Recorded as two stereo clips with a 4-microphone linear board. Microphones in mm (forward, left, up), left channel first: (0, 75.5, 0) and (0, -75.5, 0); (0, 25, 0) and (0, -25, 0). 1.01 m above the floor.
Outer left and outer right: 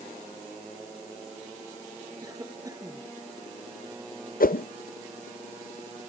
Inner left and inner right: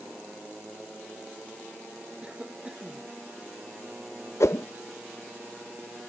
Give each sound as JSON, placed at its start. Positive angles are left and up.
{"t": 2.2, "sound": "a cough", "side_deg": -25}
{"t": 4.4, "sound": "a whoosh", "side_deg": 70}